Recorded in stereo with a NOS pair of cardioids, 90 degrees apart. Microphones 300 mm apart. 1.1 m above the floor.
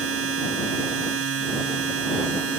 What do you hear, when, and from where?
0.0 s a machine running: 50° right